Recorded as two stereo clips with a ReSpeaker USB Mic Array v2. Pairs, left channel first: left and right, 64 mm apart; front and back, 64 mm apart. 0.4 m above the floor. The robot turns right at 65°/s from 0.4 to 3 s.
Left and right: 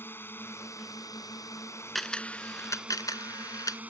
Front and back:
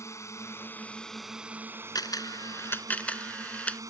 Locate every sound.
0.0 s a drone: 35° left; by 3.9 s 155° right
1.9 s a camera shutter: straight ahead; by 3.8 s 70° left